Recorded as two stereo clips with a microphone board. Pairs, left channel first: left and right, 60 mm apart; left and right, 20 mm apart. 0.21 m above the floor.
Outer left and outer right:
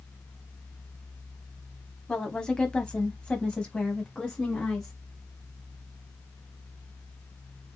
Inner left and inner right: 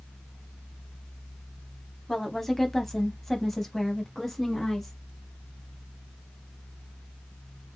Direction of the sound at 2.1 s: 10° left (ahead or behind).